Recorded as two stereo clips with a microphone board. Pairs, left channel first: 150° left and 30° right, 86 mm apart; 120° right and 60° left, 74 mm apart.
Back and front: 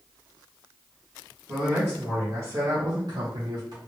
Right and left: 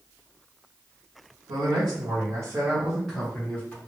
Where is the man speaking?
55° left, 1.6 m; by 3.8 s 60° right, 1.5 m.